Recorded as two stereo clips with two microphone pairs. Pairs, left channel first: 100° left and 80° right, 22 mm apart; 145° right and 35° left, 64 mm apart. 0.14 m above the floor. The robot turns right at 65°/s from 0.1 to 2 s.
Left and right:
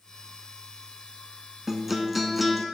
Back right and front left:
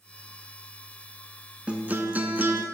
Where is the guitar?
20° right, 0.7 m; by 2.6 s 5° left, 0.7 m.